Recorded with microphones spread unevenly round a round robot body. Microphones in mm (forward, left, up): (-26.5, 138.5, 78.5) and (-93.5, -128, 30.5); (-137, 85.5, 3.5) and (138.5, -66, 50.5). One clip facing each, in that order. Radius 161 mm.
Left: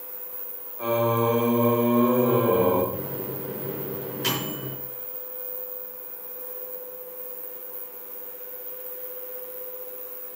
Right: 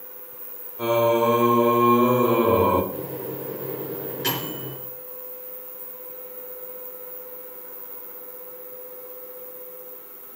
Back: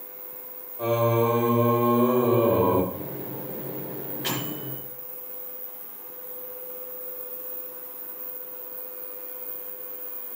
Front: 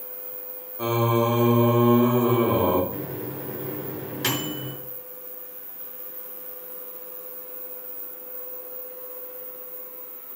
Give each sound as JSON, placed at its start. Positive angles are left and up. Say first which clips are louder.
{"t": 0.8, "sound": "singing", "louder": "right 3 dB, even", "azimuth_deg": -85, "distance_m": 2.5}
{"t": 2.9, "sound": "a microwave", "louder": "right 1 dB, front 3 dB", "azimuth_deg": -5, "distance_m": 6.0}